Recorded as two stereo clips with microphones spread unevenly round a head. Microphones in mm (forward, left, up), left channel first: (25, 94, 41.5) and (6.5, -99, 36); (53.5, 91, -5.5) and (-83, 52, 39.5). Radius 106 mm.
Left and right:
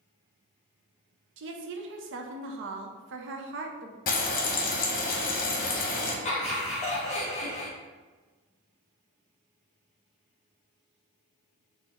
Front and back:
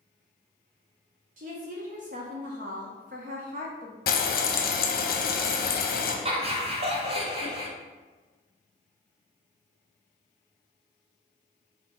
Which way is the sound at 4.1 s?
40° left.